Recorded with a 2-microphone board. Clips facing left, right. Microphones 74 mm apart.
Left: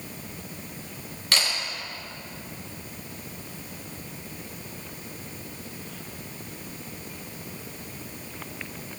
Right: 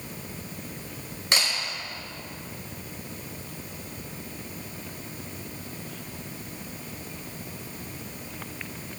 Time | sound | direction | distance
1.3 | a camera shutter | 25° right (ahead or behind) | 4.5 m